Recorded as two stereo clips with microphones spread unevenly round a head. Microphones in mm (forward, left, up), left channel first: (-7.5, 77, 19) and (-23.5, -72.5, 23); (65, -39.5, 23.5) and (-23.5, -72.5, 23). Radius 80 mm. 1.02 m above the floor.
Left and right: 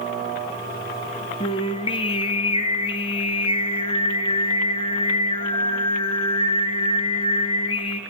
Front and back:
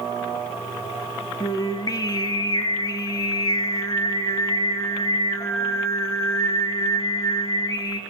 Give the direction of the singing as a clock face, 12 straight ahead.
10 o'clock.